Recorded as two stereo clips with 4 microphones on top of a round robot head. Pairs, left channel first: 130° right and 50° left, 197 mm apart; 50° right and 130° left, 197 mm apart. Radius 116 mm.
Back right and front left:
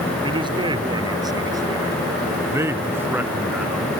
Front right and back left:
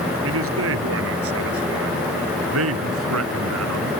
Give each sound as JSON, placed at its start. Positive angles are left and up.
{"t": 0.2, "sound": "a man speaking", "azimuth_deg": 115}